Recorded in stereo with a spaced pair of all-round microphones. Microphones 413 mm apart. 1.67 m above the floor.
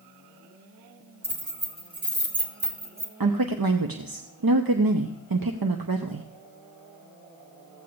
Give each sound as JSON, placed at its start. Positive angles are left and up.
{"t": 1.2, "sound": "keys jangling", "side_deg": -60, "distance_m": 2.5}
{"t": 3.2, "sound": "a woman speaking", "side_deg": -60, "distance_m": 0.7}